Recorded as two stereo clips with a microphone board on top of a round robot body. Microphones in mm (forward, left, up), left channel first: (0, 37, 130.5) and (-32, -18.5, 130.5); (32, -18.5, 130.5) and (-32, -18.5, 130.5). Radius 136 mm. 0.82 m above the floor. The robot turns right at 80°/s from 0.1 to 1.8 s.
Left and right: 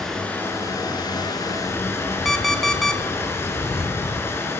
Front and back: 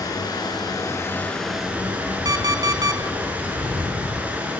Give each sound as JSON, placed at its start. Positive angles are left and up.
{"t": 0.0, "sound": "running water", "azimuth_deg": -25, "distance_m": 6.5}
{"t": 2.2, "sound": "an alarm clock", "azimuth_deg": 150, "distance_m": 2.5}